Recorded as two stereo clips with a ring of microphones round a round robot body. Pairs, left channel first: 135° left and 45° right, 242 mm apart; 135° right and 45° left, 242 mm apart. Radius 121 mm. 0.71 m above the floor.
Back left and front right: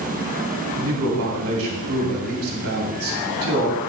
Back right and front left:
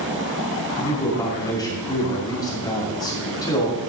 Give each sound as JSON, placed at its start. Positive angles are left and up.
{"t": 0.8, "sound": "a man speaking", "azimuth_deg": -60, "distance_m": 2.0}